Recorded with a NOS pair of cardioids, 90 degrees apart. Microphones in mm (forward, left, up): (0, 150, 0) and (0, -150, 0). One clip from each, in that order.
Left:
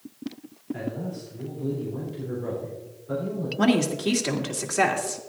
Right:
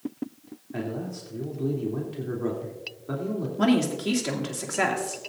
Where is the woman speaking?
15° left, 2.5 m.